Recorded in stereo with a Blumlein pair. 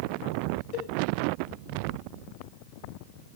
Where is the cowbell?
40° left, 7.5 m.